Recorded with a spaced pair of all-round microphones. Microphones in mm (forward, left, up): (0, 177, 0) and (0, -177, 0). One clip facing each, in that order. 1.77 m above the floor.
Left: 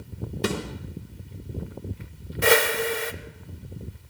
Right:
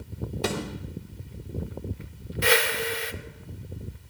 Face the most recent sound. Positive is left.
turn(degrees=60)  # may be behind; listen again after turning